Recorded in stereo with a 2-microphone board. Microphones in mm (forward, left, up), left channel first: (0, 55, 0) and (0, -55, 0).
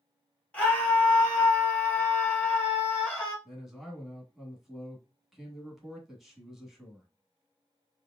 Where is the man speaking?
Centre (ahead or behind), 1.1 m.